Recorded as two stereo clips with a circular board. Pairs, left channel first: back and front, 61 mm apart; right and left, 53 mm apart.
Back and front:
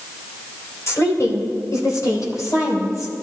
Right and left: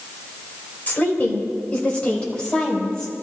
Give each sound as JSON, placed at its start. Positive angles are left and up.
{"t": 0.9, "sound": "a woman speaking", "azimuth_deg": -145, "distance_m": 4.0}